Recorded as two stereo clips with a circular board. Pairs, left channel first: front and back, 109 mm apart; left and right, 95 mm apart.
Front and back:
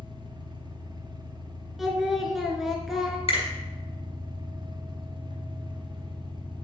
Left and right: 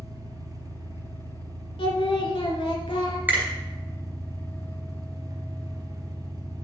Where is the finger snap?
20° right, 3 m.